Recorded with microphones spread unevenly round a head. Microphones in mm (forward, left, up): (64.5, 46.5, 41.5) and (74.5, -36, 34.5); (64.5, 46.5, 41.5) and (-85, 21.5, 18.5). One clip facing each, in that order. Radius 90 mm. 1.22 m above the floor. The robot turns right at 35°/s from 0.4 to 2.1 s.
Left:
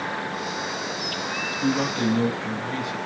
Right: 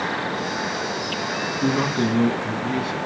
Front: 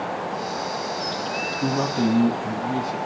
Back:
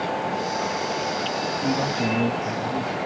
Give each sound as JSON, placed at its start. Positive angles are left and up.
{"t": 1.6, "sound": "a man speaking", "azimuth_deg": -40, "distance_m": 1.2}